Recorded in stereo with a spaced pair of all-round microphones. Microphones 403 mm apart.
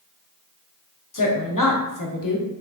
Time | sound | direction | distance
1.1 | a woman speaking | 50° left (ahead or behind) | 0.7 m